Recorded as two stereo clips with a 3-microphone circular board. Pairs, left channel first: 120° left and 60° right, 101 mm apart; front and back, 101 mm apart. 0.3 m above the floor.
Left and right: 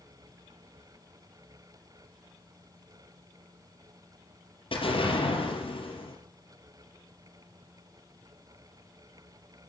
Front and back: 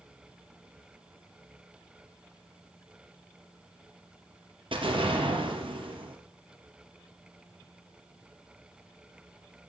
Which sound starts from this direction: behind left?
An explosion, at 4.7 s.